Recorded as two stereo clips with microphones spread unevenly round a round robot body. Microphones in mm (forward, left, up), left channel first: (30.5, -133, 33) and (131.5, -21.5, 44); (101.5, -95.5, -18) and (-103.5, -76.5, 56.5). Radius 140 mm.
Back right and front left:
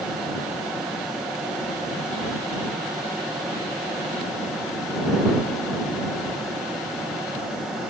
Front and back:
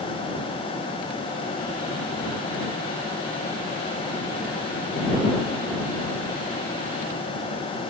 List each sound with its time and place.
Only background noise.